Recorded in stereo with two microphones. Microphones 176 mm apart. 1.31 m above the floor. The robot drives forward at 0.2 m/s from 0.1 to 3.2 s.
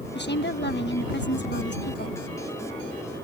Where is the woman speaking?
80° left.